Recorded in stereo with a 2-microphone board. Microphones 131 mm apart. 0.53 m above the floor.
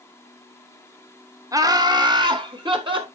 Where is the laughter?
25° right (ahead or behind), 1.0 m; by 3.0 s 35° right (ahead or behind), 2 m.